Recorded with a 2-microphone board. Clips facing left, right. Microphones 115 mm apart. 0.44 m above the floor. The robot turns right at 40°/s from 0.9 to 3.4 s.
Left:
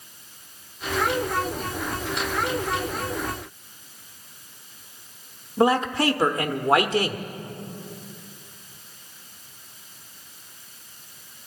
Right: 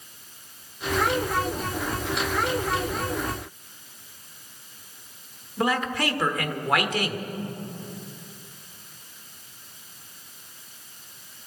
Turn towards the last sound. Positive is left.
turn(degrees=30)  # may be behind; listen again after turning